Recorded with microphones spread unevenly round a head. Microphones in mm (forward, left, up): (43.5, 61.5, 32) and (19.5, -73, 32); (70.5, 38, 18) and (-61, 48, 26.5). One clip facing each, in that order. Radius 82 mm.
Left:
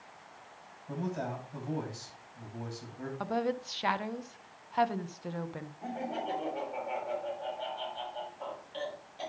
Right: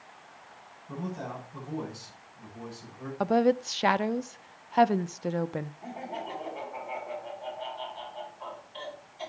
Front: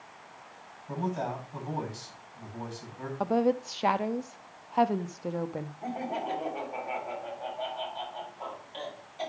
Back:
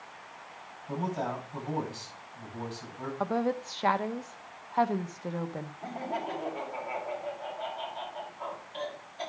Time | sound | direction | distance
0.9 | a man speaking | 85° left | 9 m
3.2 | a woman speaking | 80° right | 0.5 m
5.8 | laughter | 65° left | 8 m